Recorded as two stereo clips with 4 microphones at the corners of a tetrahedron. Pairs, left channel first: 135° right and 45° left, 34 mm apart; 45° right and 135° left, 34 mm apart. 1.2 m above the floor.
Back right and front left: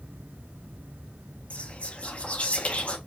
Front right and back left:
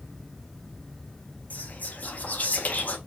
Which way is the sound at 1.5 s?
85° right.